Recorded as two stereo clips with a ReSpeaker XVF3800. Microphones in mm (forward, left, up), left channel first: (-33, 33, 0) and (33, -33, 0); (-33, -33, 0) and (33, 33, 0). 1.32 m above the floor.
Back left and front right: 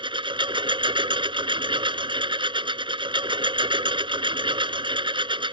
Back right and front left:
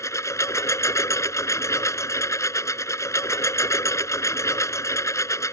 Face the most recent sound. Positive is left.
turn(degrees=-75)